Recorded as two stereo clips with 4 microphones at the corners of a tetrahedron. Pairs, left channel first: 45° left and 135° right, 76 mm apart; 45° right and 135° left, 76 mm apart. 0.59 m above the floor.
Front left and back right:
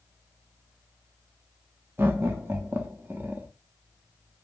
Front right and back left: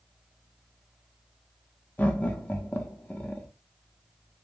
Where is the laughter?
90° right, 0.7 m.